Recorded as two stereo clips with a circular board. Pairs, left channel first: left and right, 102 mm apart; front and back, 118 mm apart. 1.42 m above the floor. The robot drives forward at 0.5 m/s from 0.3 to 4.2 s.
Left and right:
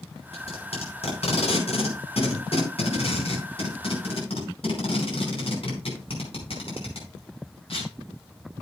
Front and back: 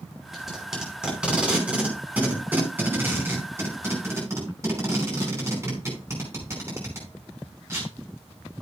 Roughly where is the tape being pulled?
Left.